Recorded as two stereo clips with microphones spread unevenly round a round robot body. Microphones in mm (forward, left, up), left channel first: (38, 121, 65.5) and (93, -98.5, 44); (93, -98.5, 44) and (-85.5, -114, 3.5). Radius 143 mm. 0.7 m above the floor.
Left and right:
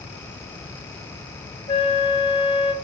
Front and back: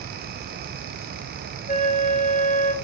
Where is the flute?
40° left, 1.2 m.